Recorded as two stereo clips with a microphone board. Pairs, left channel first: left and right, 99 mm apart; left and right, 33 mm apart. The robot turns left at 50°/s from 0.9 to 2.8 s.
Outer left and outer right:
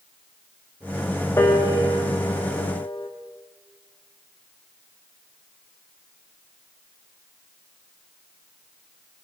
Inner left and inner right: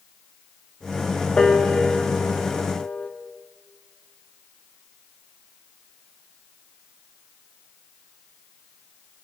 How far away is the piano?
About 1.0 m.